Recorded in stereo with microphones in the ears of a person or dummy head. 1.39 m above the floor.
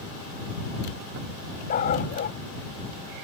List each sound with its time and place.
1.7 s a dog barking: 45° left (ahead or behind)